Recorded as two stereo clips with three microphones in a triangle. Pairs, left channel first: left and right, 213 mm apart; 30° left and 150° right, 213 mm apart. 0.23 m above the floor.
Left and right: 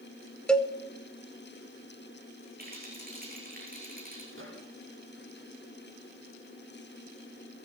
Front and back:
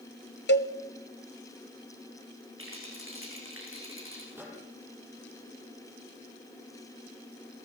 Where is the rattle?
135° right, 9 m.